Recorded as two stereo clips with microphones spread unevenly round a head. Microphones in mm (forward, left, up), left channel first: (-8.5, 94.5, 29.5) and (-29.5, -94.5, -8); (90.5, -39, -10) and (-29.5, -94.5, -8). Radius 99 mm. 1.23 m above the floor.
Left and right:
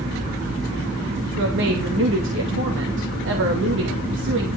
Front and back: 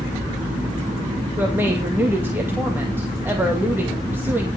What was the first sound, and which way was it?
A woman speaking, 80° right.